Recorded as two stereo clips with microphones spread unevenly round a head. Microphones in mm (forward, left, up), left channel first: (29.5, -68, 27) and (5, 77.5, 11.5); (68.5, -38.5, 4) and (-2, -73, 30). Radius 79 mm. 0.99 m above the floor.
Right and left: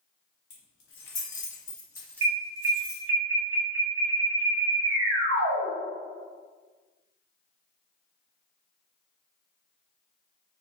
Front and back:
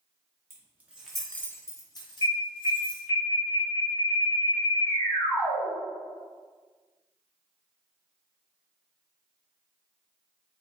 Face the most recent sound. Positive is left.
turn(degrees=100)